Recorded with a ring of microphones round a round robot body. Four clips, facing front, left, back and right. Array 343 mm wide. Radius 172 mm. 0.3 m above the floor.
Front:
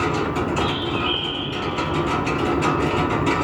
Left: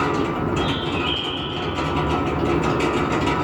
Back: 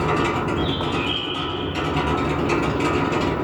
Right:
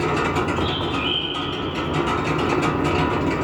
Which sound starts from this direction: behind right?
A bird, at 0.6 s.